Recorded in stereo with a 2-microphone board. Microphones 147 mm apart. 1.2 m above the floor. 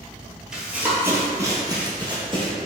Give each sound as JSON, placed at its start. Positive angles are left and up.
{"t": 0.5, "sound": "running footsteps", "side_deg": -5, "distance_m": 1.3}